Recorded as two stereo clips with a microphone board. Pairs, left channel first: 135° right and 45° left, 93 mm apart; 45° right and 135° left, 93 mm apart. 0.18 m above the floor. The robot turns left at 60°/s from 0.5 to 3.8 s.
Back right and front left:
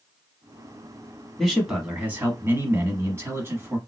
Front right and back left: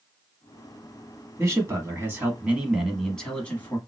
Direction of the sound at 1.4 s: 140° left.